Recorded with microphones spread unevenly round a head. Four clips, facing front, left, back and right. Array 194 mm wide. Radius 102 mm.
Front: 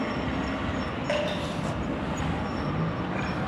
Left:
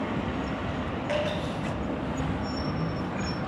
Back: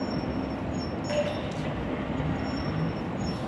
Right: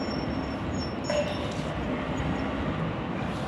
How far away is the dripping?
About 4 m.